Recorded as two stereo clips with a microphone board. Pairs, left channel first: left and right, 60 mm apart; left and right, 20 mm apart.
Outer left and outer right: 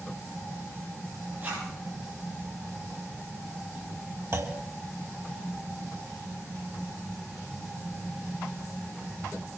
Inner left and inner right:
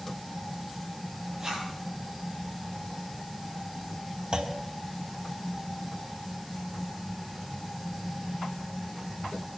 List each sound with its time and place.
1.4 s a zipper: 35° right (ahead or behind), 9 m
4.3 s a clunk: 45° right (ahead or behind), 2 m